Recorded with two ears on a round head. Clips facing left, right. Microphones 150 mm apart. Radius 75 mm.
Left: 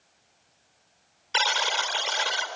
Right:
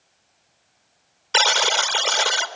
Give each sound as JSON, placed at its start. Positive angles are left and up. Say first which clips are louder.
{"t": 1.3, "sound": "a buzzer", "louder": "right 6 dB", "side_deg": -60, "distance_m": 1.0}